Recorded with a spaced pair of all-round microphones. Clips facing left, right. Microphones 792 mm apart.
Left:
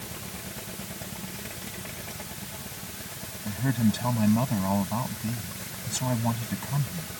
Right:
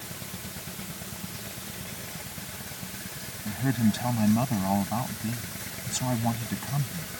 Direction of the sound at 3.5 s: 5° left (ahead or behind).